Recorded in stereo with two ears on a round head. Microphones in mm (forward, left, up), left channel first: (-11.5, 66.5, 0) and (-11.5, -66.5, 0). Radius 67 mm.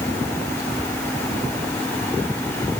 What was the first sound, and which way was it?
Only background noise.